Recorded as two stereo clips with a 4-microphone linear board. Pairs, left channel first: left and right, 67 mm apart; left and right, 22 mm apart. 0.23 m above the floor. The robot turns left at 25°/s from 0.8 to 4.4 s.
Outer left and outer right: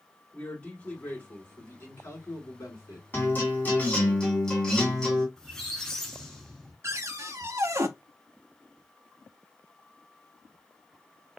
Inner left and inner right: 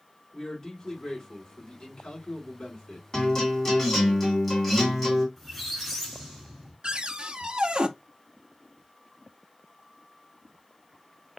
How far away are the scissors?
No scissors in this recording.